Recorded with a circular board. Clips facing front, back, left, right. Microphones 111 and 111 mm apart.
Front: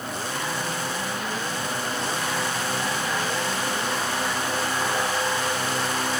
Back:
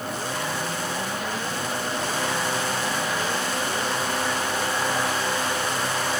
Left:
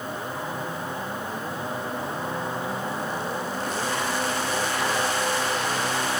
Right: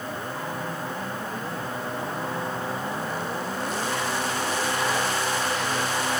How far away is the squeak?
No squeak in this recording.